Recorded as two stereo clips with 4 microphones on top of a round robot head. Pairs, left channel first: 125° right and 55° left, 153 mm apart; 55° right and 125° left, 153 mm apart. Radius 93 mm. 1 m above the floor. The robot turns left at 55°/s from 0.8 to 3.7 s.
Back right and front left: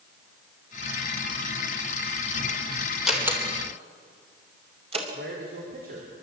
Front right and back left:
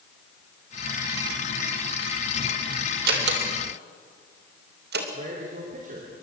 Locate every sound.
3.1 s a door slam: 145° left, 3.5 m; by 5.0 s 110° left, 3.5 m
5.1 s a man speaking: 85° left, 3.5 m